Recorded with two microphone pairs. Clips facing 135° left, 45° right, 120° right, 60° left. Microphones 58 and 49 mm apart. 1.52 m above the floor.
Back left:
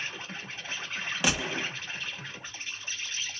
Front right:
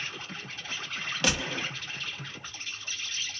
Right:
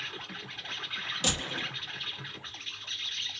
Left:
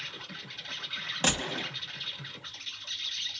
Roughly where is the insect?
Behind.